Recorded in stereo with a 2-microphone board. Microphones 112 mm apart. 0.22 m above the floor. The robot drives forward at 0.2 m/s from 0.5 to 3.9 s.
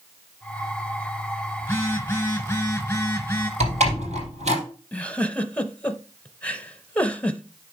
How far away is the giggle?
About 0.7 m.